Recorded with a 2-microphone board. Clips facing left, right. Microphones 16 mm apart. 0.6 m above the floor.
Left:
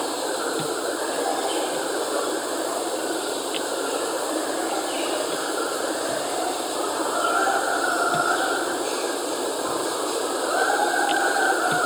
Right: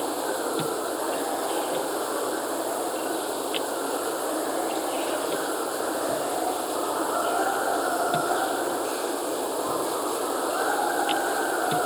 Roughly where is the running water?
Left.